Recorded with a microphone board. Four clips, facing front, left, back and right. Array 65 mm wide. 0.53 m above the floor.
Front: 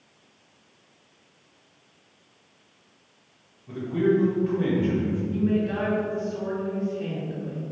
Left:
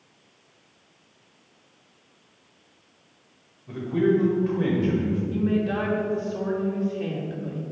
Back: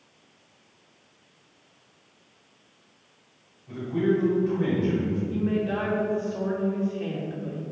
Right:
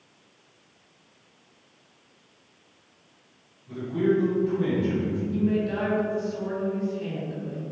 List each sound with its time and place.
3.7 s a man speaking: 70° left, 2.0 m
5.3 s a woman speaking: 105° left, 1.6 m